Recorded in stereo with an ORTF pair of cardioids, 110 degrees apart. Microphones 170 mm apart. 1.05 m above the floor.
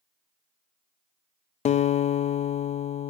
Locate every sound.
1.6 s a guitar: 40° left, 0.5 m